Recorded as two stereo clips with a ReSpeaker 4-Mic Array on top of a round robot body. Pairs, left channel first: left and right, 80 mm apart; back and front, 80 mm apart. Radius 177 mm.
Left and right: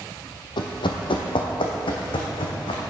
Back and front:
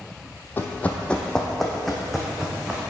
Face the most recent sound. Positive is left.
turn(degrees=85)